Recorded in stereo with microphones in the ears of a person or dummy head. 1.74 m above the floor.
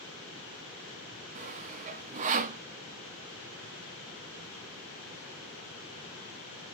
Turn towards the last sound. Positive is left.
turn(degrees=-35)  # may be behind; listen again after turning